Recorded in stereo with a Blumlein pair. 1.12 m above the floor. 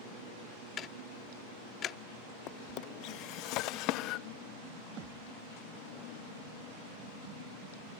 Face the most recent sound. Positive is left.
turn(degrees=-35)